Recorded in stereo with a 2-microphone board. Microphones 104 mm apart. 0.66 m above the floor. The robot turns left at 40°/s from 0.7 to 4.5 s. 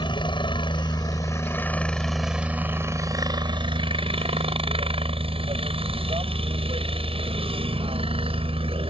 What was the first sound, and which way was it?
A helicopter, 60° left.